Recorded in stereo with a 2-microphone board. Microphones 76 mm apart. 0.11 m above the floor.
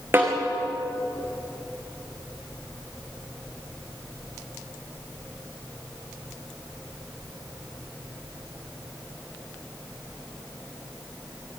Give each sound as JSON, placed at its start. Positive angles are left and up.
{"t": 0.1, "sound": "a snare drum", "side_deg": -30, "distance_m": 6.5}